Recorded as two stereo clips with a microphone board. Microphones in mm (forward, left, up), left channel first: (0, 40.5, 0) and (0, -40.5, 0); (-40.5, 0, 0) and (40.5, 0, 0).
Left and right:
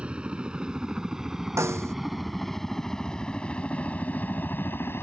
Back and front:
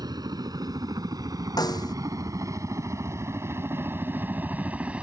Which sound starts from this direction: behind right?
A snare drum, at 1.6 s.